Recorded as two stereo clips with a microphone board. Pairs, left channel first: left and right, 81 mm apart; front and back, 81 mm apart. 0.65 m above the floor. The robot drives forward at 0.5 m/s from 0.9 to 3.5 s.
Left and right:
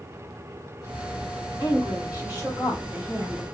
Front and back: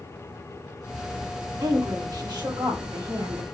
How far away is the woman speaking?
About 2 m.